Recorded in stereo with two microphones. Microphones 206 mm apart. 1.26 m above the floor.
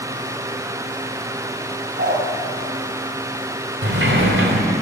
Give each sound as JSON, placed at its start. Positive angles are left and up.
{"t": 2.0, "sound": "a dog barking", "side_deg": -55, "distance_m": 4.0}
{"t": 3.8, "sound": "a sliding door", "side_deg": -70, "distance_m": 3.5}